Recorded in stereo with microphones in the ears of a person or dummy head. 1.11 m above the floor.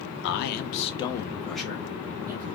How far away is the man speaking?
About 0.7 m.